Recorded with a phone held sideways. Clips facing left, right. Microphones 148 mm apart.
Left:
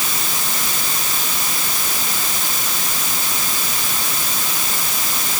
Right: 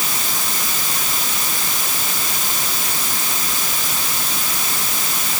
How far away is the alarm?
I don't hear an alarm.